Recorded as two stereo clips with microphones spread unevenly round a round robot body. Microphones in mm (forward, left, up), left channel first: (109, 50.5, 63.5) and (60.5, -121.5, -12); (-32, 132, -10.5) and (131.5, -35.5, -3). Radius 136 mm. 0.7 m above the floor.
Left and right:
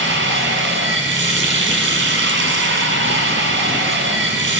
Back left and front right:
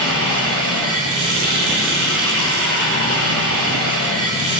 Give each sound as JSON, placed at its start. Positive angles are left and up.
{"t": 0.0, "sound": "running water", "azimuth_deg": -90, "distance_m": 3.5}